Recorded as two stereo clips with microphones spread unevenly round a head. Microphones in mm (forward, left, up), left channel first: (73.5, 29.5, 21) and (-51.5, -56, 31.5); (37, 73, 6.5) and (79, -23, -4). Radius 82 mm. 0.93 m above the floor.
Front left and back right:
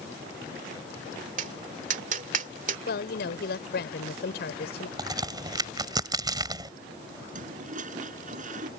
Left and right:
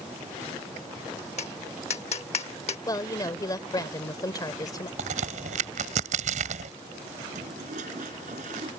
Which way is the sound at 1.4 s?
170° left.